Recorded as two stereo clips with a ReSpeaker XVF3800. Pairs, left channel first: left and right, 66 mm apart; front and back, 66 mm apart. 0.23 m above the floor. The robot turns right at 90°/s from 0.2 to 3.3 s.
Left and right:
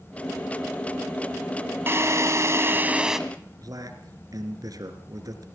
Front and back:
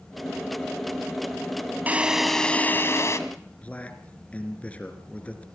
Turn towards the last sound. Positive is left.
turn(degrees=-70)